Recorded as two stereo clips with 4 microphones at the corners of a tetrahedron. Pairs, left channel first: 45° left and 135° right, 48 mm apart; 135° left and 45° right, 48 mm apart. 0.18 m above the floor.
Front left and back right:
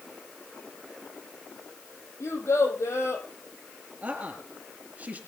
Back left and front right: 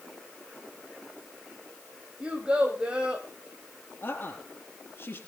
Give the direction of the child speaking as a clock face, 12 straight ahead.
11 o'clock.